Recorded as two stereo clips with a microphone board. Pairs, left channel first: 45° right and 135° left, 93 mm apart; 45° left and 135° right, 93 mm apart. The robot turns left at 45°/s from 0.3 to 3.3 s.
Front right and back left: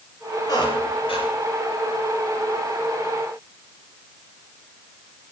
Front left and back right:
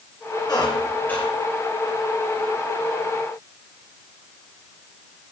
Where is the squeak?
Straight ahead, 6.5 m; by 1.3 s 35° right, 6.5 m.